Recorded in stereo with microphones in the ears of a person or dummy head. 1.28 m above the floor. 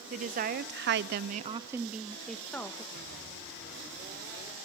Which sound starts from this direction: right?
A woman speaking, at 0.1 s.